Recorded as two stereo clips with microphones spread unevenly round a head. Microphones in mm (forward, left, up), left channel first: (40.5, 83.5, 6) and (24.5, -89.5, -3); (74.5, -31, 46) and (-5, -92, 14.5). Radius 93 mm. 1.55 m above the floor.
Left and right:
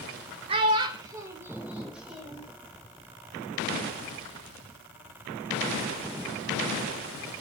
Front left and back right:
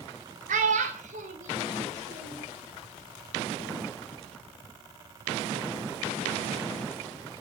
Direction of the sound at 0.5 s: 160° right.